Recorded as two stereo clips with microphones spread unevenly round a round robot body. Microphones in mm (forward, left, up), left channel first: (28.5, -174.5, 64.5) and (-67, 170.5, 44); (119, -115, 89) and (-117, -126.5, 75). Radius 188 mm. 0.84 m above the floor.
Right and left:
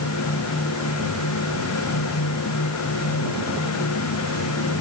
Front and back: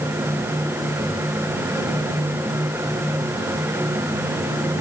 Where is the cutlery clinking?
No cutlery clinking in this recording.